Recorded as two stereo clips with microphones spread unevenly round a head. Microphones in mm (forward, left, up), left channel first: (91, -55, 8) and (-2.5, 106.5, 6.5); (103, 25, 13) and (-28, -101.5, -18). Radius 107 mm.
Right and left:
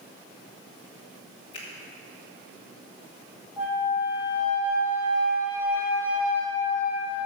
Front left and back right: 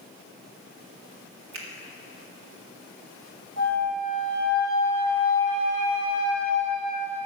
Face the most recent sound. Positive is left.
turn(degrees=-155)